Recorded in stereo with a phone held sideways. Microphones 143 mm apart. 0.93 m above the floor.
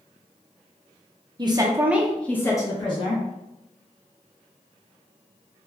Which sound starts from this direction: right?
A woman speaking, at 1.4 s.